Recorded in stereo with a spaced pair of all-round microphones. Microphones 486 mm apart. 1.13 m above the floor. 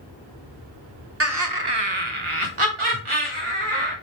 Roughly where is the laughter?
Right.